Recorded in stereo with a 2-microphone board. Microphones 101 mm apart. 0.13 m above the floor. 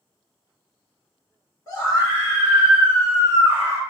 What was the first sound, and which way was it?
A scream, 35° left (ahead or behind).